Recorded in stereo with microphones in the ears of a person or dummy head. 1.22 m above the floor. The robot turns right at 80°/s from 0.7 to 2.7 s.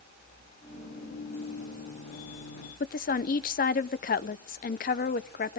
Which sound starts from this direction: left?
A woman speaking, at 2.8 s.